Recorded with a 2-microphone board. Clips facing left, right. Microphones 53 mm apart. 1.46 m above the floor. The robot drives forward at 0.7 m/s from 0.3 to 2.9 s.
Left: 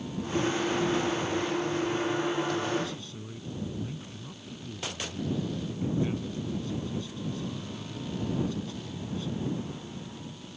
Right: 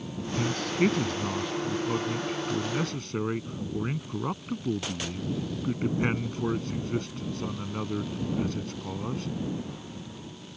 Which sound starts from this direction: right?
A man speaking, at 0.4 s.